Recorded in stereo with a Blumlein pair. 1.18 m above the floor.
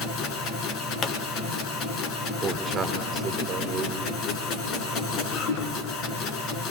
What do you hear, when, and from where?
0.0 s a machine running: 35° left, 3 m
1.0 s a pop: 20° left, 1.4 m
2.4 s a man speaking: 20° right, 3.5 m